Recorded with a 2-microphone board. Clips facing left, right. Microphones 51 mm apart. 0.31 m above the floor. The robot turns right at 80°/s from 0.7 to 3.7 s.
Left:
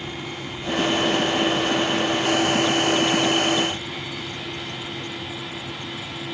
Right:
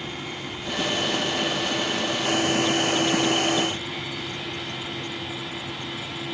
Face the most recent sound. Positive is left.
No sound to turn to.